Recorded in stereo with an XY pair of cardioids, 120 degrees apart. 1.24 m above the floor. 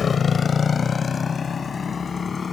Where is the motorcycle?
40° left; by 2.5 s 30° left.